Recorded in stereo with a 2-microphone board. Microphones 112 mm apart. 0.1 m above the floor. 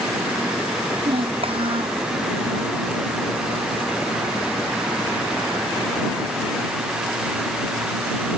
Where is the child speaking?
55° right (ahead or behind).